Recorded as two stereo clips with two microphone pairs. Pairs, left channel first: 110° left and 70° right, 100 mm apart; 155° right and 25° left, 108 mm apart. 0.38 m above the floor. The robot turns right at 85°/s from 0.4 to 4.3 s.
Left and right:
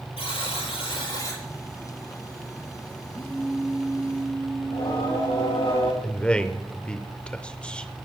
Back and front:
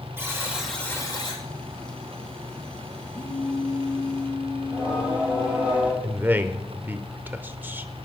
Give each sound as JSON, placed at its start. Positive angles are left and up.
{"t": 0.2, "sound": "a buzzer", "azimuth_deg": 95, "distance_m": 5.5}
{"t": 3.1, "sound": "a phone buzzing", "azimuth_deg": 165, "distance_m": 5.0}
{"t": 4.6, "sound": "singing", "azimuth_deg": 100, "distance_m": 7.5}
{"t": 6.0, "sound": "a man speaking", "azimuth_deg": 50, "distance_m": 0.8}